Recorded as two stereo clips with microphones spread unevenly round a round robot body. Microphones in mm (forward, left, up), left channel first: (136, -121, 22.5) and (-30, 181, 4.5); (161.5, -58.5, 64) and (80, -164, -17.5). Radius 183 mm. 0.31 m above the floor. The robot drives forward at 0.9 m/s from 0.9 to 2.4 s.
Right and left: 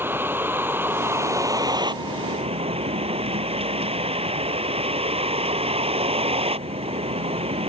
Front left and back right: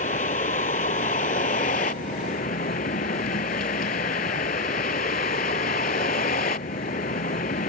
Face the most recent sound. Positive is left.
turn(degrees=45)